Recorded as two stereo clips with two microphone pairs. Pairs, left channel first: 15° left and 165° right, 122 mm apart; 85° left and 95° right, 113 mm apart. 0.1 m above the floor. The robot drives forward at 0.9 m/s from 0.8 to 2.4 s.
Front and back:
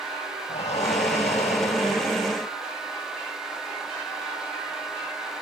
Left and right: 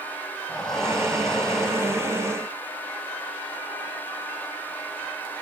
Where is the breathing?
5° right, 7.5 m.